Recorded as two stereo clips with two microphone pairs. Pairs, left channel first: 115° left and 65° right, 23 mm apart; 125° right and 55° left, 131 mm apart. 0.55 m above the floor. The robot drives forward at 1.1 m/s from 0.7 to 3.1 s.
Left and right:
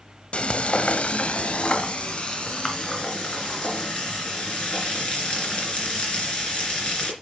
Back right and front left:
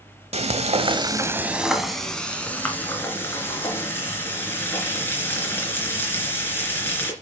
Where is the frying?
90° left, 0.9 m; by 7.1 s 160° left, 3 m.